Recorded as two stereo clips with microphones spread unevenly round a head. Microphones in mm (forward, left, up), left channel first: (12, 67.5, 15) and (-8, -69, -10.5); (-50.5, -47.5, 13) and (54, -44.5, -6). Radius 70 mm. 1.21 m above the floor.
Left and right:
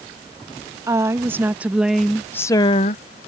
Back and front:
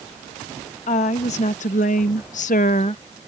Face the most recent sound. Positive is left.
turn(degrees=115)